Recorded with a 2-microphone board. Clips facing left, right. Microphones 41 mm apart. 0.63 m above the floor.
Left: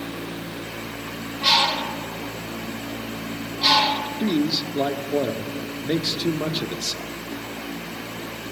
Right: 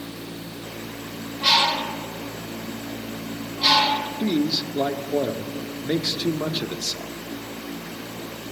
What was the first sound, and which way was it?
A bird, 5° left (ahead or behind).